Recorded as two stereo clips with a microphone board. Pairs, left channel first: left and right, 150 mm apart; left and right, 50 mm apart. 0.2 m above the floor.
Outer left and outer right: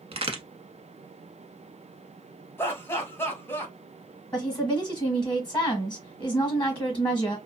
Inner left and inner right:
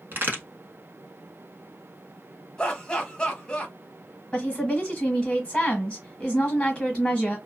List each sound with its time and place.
0.1 s a crack: 45° right (ahead or behind), 0.8 m
2.6 s laughter: 15° left (ahead or behind), 1.0 m
4.3 s a woman speaking: 15° left (ahead or behind), 1.1 m